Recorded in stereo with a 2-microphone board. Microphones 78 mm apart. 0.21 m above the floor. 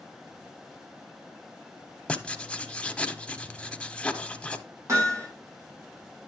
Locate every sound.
2.1 s writing: 15° left (ahead or behind), 0.6 m
4.9 s hammering: 40° right (ahead or behind), 6 m